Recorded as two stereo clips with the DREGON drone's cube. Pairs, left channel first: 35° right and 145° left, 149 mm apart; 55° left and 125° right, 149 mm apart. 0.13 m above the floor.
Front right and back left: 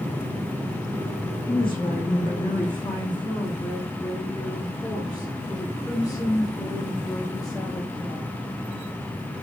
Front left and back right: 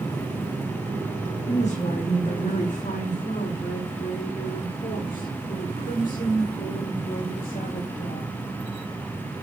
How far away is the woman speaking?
About 6 m.